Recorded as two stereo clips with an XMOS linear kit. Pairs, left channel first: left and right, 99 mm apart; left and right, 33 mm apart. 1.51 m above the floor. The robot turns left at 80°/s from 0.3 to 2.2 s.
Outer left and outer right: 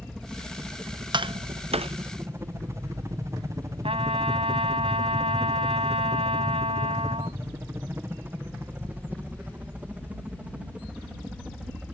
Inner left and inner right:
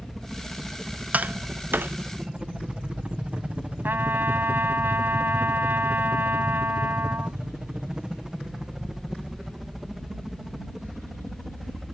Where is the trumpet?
75° right (ahead or behind).